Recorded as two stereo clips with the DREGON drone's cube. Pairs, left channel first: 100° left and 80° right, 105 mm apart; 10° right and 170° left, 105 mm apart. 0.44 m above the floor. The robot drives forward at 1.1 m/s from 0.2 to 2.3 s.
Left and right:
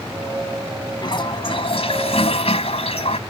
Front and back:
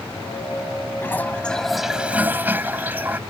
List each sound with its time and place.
1.0 s a toilet flushing: 55° left; by 3.2 s 100° left